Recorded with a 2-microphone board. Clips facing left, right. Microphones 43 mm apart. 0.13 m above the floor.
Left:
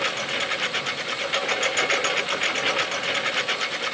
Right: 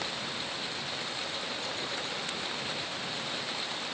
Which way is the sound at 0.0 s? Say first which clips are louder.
Left 10 dB; 75° left (ahead or behind).